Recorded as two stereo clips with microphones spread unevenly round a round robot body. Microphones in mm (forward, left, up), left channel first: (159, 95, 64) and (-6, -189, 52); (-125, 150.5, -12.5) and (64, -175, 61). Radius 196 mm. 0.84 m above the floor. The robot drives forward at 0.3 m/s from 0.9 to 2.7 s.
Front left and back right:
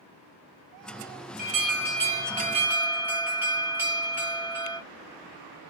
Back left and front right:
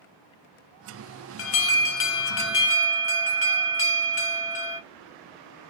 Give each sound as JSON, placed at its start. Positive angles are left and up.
{"t": 1.4, "sound": "an alarm", "azimuth_deg": 175, "distance_m": 0.6}